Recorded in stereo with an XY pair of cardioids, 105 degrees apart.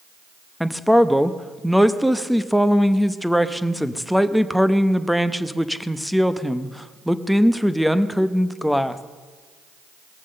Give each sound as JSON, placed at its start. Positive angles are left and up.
{"t": 0.6, "sound": "a man speaking", "azimuth_deg": 0, "distance_m": 0.9}